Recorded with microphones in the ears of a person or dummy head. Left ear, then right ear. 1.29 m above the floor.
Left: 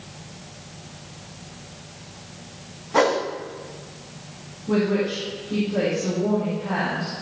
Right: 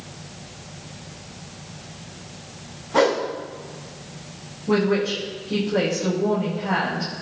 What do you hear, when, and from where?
2.9 s a whoosh: 10° left (ahead or behind), 1.2 m
4.7 s a woman speaking: 60° right (ahead or behind), 4 m